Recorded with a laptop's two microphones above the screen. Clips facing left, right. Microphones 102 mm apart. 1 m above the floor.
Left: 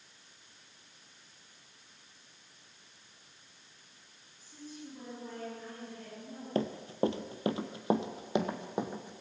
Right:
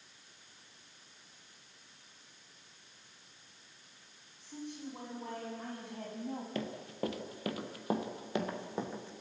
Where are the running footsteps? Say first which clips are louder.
Left 12 dB; 35° left (ahead or behind), 1.2 m; by 9.2 s 15° left (ahead or behind), 2.5 m.